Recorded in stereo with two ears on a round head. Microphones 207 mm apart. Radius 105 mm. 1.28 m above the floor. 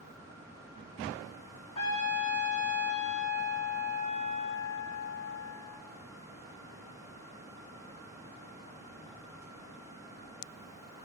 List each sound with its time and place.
1.8 s a trumpet: 30° left (ahead or behind), 2.5 m